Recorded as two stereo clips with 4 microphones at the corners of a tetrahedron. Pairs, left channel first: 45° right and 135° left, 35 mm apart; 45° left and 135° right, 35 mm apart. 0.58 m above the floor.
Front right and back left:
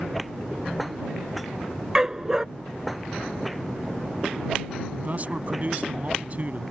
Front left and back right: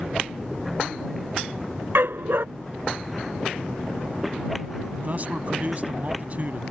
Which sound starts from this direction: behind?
A man speaking, at 4.9 s.